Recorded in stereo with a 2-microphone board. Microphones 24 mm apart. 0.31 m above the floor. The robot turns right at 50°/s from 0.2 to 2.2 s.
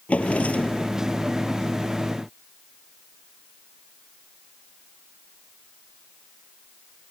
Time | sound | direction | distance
0.1 | a drawer | 80° left | ?